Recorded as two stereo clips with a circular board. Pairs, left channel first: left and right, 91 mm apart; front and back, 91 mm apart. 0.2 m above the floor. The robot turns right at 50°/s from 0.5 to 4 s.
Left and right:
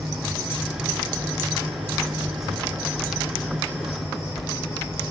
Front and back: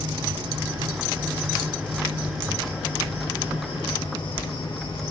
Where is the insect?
145° right, 2.5 m; by 5.1 s 30° left, 2.5 m.